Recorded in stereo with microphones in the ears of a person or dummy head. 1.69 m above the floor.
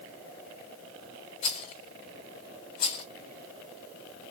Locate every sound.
1.4 s a rattle: 30° left (ahead or behind), 0.5 m